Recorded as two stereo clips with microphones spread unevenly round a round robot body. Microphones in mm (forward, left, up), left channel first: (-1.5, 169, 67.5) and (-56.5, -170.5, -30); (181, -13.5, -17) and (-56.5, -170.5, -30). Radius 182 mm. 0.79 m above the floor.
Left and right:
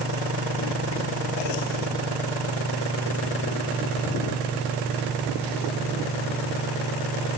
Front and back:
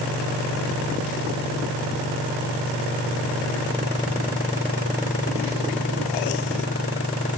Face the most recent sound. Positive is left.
No sound to turn to.